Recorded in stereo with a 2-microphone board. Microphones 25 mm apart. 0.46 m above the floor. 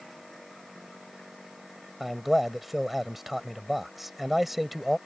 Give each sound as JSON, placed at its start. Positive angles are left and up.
{"t": 2.0, "sound": "a man speaking", "side_deg": -10}